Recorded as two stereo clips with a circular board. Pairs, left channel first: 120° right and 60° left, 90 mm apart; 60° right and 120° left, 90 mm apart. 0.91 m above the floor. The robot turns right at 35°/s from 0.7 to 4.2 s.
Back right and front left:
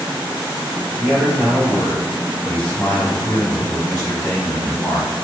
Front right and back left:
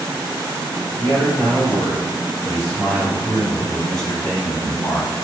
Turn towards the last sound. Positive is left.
turn(degrees=-140)